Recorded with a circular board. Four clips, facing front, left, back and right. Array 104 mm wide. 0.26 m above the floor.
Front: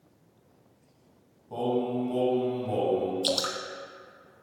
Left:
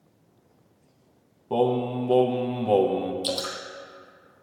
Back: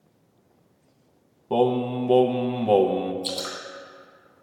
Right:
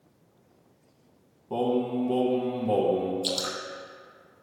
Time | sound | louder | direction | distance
1.5 | singing | left 3 dB, back 6 dB | 160° left | 0.7 m
3.2 | dripping | left 2 dB, front 3 dB | 10° left | 1.3 m